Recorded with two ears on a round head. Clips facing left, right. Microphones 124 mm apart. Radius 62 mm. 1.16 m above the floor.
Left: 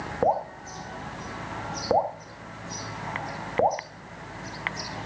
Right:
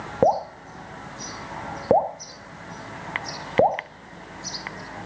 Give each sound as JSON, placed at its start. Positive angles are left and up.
{"t": 0.2, "sound": "dripping", "side_deg": -30, "distance_m": 1.6}